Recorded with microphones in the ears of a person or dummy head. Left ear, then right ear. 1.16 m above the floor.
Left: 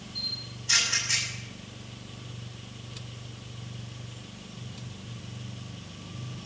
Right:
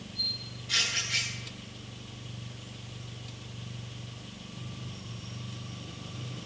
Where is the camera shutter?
45° left (ahead or behind), 8.5 m.